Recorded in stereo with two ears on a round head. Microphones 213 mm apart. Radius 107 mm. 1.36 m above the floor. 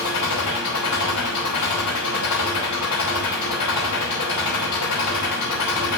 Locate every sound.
0.0 s an engine running: 85° left, 5 m